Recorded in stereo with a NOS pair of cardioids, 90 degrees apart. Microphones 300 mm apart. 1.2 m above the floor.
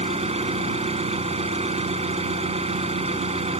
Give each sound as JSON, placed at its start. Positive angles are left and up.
{"t": 0.0, "sound": "an engine running", "azimuth_deg": -20}